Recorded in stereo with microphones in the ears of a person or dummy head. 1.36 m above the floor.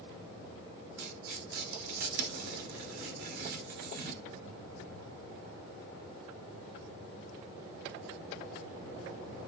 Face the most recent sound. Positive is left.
turn(degrees=-50)  # may be behind; listen again after turning